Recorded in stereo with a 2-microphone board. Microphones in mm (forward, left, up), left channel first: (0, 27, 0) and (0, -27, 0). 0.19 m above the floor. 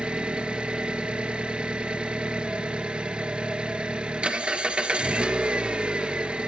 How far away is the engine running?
About 1.5 m.